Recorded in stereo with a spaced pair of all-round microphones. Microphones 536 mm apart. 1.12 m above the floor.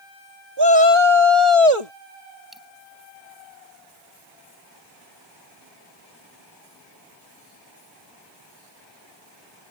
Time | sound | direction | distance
0.6 | a shout | 45° right (ahead or behind) | ?
2.5 | a dropped coin | centre (ahead or behind) | ?